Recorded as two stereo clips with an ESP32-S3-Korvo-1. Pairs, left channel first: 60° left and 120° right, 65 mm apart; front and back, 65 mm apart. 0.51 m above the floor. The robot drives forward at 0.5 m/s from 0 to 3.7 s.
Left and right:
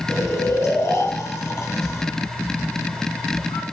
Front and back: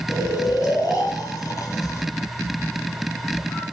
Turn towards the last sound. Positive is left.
turn(degrees=45)